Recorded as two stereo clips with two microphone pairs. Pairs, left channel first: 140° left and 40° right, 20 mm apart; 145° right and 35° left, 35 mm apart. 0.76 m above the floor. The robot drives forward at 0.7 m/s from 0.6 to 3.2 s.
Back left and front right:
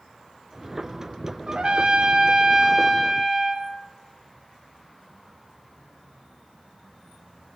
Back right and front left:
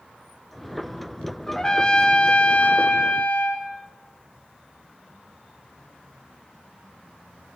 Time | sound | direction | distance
1.5 | a trumpet | 70° right | 1.6 m